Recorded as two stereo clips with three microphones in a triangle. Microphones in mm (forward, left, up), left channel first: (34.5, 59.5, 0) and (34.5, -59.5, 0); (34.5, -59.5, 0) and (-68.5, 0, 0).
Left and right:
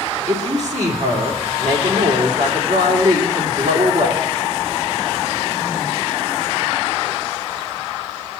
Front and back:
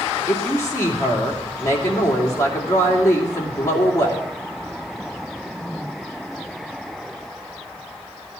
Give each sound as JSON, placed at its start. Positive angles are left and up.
{"t": 0.3, "sound": "a woman speaking", "azimuth_deg": -95, "distance_m": 2.5}